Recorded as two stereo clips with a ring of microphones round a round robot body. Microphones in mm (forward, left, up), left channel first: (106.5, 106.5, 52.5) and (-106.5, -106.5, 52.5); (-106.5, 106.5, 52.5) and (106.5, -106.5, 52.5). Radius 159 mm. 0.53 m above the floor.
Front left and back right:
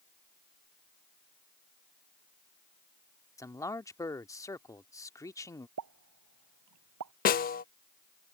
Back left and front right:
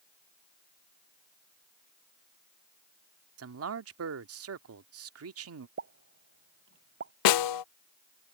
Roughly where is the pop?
Right.